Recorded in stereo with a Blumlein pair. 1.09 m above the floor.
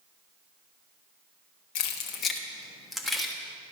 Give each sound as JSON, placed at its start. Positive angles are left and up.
{"t": 1.8, "sound": "keys jangling", "azimuth_deg": 45, "distance_m": 0.9}